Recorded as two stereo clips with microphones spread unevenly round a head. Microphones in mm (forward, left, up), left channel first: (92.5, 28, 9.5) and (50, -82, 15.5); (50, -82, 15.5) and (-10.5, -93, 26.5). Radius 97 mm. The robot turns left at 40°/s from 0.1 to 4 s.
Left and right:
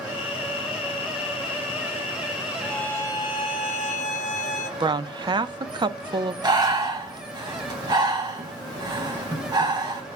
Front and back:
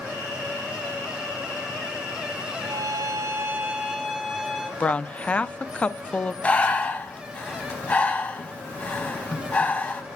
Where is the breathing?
55° right, 2.5 m.